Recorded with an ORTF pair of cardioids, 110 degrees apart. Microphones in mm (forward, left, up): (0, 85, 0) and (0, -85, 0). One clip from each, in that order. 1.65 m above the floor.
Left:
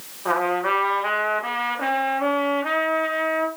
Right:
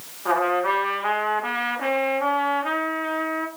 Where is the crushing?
No crushing in this recording.